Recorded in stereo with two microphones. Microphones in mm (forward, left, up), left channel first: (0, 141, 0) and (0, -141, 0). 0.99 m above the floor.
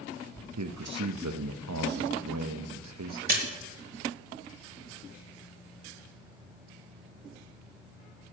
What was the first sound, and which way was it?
A man speaking, 75° right (ahead or behind).